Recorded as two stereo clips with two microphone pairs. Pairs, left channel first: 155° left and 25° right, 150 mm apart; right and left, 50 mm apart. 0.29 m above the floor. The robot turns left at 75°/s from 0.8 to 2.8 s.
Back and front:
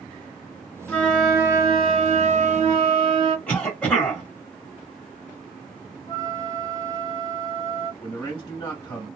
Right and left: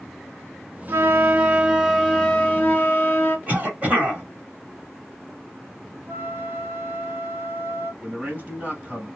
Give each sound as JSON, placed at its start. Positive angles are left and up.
{"t": 0.9, "sound": "a flute", "azimuth_deg": 85, "distance_m": 1.3}
{"t": 3.5, "sound": "a cough", "azimuth_deg": 80, "distance_m": 1.6}
{"t": 6.1, "sound": "a flute", "azimuth_deg": 110, "distance_m": 1.1}
{"t": 8.0, "sound": "a man speaking", "azimuth_deg": 110, "distance_m": 1.7}